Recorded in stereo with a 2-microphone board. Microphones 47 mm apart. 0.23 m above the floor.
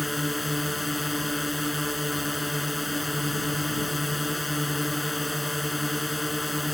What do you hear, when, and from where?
0.0 s a drone: centre (ahead or behind)